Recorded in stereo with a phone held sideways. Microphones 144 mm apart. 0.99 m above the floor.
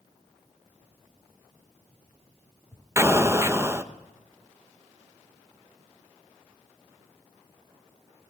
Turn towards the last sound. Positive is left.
turn(degrees=-20)  # may be behind; listen again after turning